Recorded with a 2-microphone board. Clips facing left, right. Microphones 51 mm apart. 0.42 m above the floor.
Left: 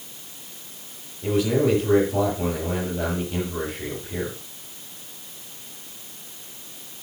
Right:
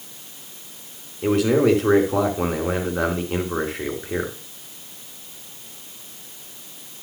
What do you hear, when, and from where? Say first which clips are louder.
1.2 s a man speaking: right 4 dB; 75° right (ahead or behind), 4.5 m